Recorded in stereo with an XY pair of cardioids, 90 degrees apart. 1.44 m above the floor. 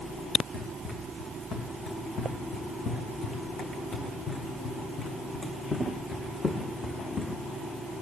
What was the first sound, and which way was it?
Running footsteps, 70° left.